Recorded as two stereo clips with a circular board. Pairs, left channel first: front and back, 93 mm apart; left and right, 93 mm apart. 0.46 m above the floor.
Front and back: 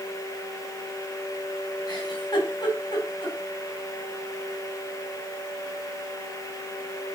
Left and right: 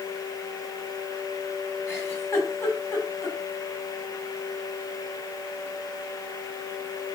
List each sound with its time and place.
1.9 s a giggle: 30° left, 3 m